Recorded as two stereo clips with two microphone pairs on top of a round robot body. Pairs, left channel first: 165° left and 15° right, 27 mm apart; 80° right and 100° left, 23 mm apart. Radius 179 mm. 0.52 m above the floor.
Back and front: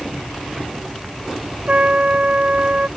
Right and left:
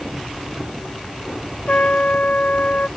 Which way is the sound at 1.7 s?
55° right.